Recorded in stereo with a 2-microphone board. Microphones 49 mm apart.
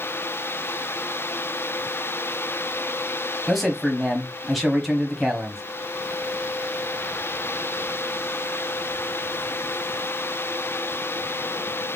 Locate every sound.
3.5 s a man speaking: centre (ahead or behind), 1.0 m